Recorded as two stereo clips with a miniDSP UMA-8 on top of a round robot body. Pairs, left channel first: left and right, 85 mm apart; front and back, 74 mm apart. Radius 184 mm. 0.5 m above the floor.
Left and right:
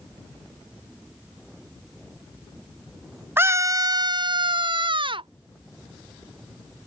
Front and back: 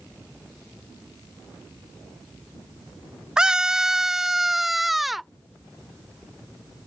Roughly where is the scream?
Behind right.